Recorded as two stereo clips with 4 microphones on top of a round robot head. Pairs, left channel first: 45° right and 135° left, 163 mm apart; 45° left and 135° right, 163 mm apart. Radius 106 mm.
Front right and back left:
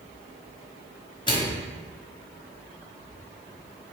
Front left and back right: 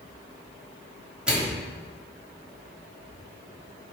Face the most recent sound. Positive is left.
turn(degrees=-60)